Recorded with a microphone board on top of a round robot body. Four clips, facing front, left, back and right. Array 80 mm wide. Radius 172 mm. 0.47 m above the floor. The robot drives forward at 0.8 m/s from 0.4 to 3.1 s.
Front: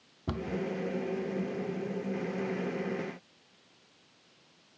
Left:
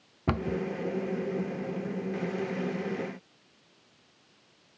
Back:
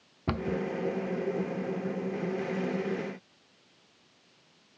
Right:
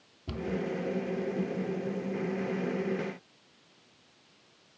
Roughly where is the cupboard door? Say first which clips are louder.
Left 4 dB, back 4 dB; behind left.